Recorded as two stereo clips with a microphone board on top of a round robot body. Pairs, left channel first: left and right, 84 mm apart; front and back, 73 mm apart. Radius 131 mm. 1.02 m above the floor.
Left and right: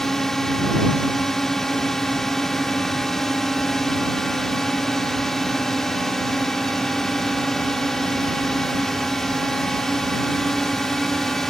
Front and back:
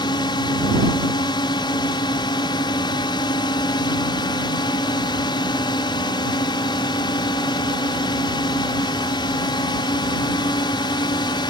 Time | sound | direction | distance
0.0 | a drone | 5° left | ?